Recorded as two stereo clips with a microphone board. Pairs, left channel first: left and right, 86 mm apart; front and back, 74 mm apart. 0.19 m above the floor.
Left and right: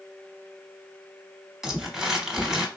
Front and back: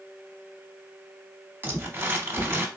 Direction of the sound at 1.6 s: 170° right.